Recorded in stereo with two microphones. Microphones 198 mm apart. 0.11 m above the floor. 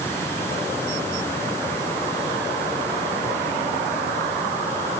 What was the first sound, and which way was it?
Only background noise.